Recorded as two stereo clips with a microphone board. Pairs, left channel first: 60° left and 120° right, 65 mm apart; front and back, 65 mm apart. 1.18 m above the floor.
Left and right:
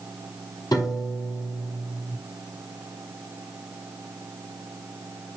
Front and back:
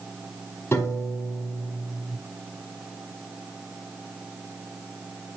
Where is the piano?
45° left, 5 m.